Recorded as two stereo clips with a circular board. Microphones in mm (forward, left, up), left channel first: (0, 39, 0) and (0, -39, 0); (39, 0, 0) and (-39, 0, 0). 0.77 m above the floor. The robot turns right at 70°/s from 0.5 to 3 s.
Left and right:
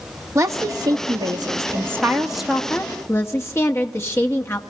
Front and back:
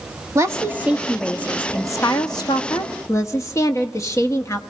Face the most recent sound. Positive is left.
turn(degrees=40)